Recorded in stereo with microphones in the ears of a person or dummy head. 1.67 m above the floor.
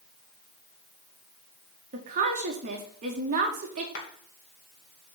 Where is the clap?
65° left (ahead or behind), 2 m.